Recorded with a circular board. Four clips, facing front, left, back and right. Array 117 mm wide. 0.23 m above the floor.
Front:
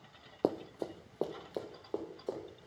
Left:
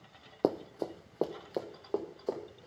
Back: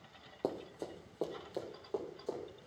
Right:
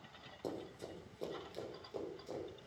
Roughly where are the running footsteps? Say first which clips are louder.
Left 14 dB, front 5 dB; ahead left.